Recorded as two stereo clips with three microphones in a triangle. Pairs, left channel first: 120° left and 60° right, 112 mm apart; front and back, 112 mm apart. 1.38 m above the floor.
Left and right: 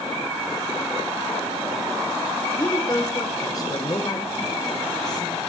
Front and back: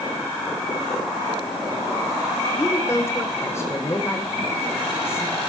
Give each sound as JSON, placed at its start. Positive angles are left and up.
{"t": 2.5, "sound": "a woman speaking", "azimuth_deg": 65, "distance_m": 5.0}